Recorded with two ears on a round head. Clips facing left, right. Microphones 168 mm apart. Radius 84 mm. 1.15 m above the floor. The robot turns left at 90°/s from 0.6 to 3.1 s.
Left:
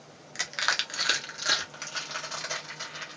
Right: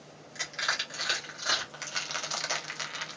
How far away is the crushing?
About 1.1 m.